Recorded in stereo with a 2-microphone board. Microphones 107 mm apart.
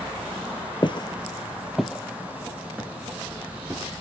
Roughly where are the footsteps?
Left.